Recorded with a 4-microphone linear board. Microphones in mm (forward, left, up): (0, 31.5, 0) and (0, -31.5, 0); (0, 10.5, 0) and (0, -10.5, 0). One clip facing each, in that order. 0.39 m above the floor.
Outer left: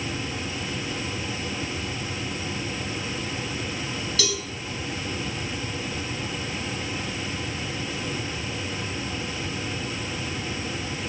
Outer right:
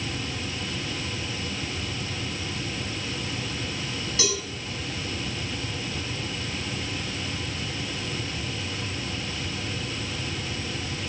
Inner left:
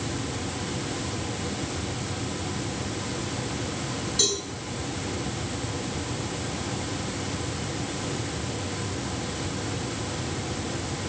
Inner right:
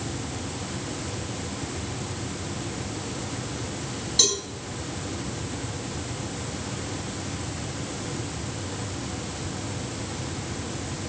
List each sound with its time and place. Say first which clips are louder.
4.2 s a cowbell: outer right 1 dB, inner right 3 dB; 30° right (ahead or behind), 4 m